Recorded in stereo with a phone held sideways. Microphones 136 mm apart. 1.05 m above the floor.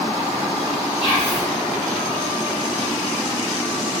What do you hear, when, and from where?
1.0 s whispering: 35° left (ahead or behind), 0.8 m